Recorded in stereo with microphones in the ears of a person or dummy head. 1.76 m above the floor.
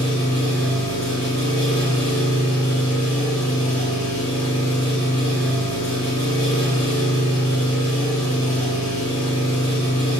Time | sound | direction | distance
0.0 | an engine running | 15° left (ahead or behind) | 3.5 m